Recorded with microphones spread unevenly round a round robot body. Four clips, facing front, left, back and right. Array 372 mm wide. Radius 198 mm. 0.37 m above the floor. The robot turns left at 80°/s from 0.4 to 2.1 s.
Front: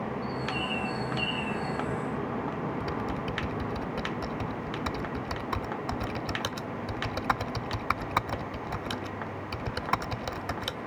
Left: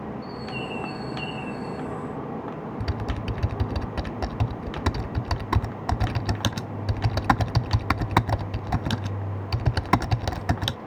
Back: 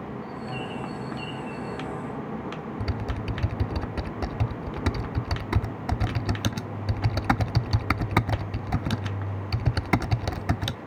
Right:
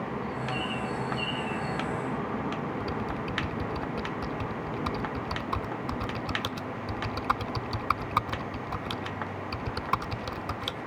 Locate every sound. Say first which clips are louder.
0.2 s a bird: right 1 dB, front 2 dB; 30° left; by 1.9 s 85° right
2.8 s typing on a keyboard: even, front 1 dB; 140° left